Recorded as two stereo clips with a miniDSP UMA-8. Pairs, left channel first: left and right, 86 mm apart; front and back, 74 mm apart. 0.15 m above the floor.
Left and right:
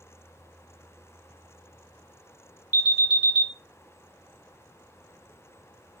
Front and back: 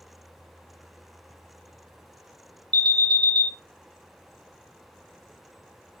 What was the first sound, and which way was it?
An alarm, 165° right.